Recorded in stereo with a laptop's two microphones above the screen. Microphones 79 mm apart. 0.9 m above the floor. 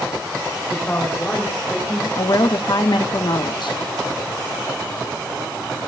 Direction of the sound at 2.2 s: 70° left (ahead or behind).